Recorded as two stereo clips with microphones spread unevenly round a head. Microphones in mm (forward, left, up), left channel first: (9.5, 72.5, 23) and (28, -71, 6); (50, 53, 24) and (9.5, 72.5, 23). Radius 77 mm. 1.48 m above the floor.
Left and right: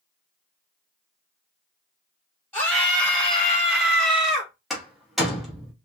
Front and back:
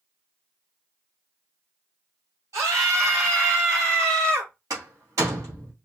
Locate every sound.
2.5 s a scream: straight behind, 4 m; by 4.5 s 170° right, 3 m
4.7 s a door slam: 175° right, 2.0 m